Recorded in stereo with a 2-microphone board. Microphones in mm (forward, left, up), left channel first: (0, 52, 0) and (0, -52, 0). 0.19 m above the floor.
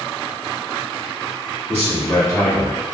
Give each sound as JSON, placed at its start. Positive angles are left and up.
{"t": 1.7, "sound": "a man speaking", "side_deg": 20, "distance_m": 1.4}